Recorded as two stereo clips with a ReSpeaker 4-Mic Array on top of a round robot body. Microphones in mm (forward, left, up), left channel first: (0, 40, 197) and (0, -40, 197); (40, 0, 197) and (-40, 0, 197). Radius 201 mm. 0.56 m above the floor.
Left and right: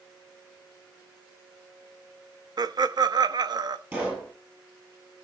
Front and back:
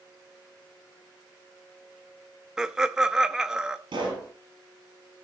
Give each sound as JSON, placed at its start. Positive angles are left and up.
{"t": 2.6, "sound": "laughter", "azimuth_deg": -100, "distance_m": 1.0}
{"t": 3.9, "sound": "a pop", "azimuth_deg": -160, "distance_m": 5.5}